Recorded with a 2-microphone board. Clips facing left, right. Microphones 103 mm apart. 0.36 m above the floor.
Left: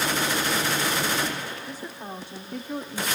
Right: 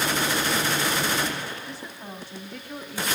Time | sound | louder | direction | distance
1.7 | a woman speaking | left 2 dB | 15° left (ahead or behind) | 2.5 m